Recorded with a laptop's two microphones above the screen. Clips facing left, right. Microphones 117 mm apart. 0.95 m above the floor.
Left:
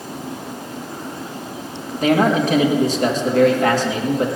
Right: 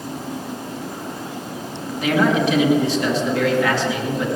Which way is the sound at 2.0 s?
45° left (ahead or behind).